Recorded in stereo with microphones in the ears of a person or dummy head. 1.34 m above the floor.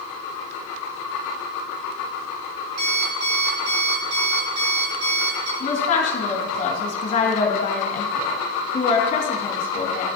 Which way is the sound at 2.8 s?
80° right.